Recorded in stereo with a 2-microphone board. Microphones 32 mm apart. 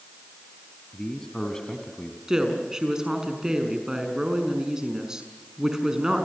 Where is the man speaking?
15° left (ahead or behind), 3.5 m; by 2.2 s 20° left (ahead or behind), 2.5 m.